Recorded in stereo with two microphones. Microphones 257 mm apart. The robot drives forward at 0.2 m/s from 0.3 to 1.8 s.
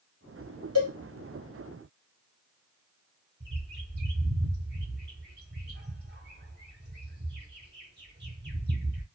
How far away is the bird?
About 0.9 m.